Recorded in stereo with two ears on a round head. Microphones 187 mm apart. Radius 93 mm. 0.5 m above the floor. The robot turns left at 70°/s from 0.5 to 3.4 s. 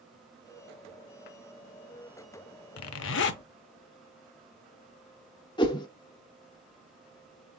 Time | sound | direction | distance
2.8 | a zipper | 95° left | 0.5 m
5.6 | a whoosh | 20° left (ahead or behind) | 0.7 m